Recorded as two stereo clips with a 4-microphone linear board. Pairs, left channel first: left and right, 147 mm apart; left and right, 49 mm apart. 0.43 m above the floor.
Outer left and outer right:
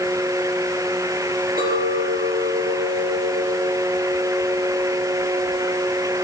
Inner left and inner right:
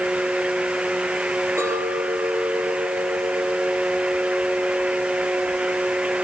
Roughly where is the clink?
Right.